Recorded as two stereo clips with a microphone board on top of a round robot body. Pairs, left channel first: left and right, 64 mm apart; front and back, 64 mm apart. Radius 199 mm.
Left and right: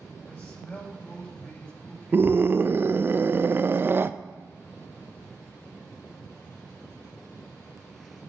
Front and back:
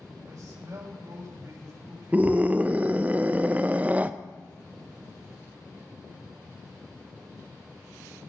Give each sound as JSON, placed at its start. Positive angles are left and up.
{"t": 0.2, "sound": "a man speaking", "azimuth_deg": 160, "distance_m": 5.0}
{"t": 2.1, "sound": "a scream", "azimuth_deg": -125, "distance_m": 0.5}